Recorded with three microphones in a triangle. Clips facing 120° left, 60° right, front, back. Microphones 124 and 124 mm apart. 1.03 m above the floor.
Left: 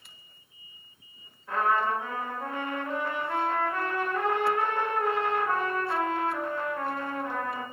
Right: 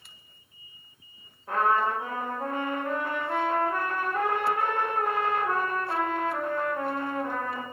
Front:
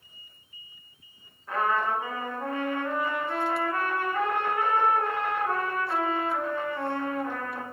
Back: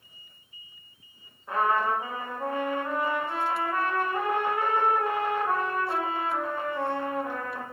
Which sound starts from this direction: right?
A trumpet, at 1.5 s.